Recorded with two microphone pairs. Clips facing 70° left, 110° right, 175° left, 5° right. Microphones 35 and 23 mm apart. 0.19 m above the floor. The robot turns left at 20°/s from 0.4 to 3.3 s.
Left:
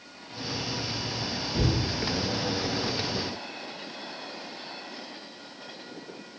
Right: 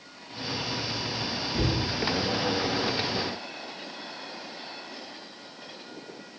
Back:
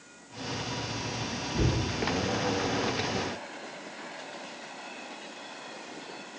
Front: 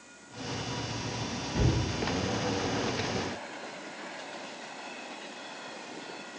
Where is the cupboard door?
10° right, 1.5 m; by 1.8 s 20° right, 1.5 m.